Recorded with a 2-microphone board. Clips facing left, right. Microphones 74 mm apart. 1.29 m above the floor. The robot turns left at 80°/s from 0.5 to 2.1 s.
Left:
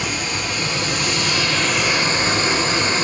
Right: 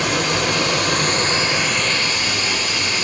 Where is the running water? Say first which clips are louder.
Right 5 dB; 80° right, 3.5 m; by 3.0 s 150° left, 3.5 m.